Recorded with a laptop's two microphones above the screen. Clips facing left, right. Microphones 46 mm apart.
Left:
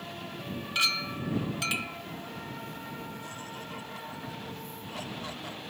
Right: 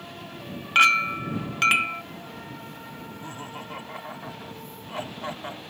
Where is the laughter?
30° right (ahead or behind).